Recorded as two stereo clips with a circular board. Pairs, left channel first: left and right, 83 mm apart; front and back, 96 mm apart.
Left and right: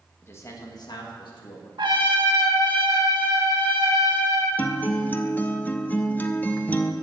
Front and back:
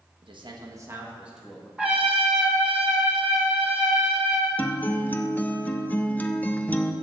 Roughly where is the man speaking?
Behind left.